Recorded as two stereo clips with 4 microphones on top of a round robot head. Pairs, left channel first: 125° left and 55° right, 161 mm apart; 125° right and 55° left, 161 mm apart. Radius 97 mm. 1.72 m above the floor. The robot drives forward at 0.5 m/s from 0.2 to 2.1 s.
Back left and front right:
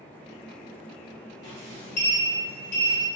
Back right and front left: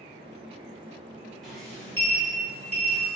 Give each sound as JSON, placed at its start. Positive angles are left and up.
{"t": 1.4, "sound": "a sliding door", "azimuth_deg": 145, "distance_m": 1.1}